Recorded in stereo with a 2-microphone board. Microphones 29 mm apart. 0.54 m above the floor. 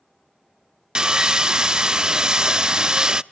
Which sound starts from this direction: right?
Sawing, at 0.9 s.